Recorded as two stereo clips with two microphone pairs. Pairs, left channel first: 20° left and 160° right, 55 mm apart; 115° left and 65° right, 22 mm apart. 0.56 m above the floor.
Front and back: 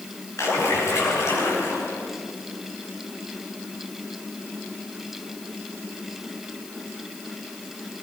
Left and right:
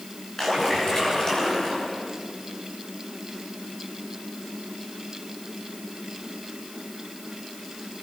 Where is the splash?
50° left, 7.5 m.